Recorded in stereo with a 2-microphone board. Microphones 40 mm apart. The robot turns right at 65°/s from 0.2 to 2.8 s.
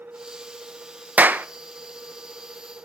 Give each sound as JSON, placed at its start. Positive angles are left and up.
{"t": 1.2, "sound": "a clap", "side_deg": -40, "distance_m": 0.6}